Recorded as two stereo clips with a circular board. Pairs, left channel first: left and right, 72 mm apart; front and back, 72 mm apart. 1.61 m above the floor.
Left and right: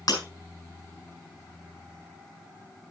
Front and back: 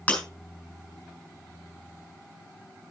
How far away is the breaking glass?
About 4 m.